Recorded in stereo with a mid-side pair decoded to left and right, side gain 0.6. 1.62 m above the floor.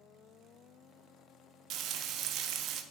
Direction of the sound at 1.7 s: 60° right.